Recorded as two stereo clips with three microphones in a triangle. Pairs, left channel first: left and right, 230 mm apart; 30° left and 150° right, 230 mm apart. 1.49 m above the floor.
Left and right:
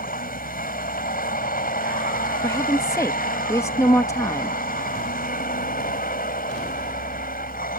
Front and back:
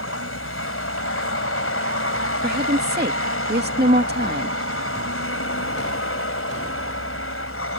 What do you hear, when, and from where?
0.0 s a vehicle: 40° left
2.4 s a woman speaking: 170° left